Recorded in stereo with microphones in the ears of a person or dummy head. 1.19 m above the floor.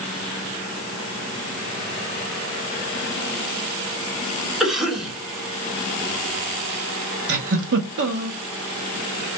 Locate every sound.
4.6 s a cough: centre (ahead or behind), 1.8 m
7.3 s a giggle: 60° right (ahead or behind), 0.9 m